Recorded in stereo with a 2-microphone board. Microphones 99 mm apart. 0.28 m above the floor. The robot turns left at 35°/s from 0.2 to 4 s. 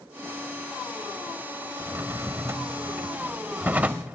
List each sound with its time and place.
1.8 s a drawer: 25° right (ahead or behind), 0.6 m; by 4.2 s 15° right (ahead or behind), 0.6 m